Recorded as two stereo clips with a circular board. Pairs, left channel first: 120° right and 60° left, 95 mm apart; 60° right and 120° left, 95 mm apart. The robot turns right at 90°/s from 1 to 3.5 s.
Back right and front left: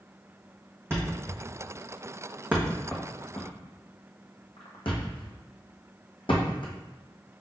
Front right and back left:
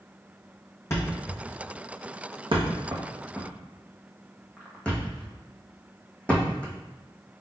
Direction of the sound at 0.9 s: Straight ahead.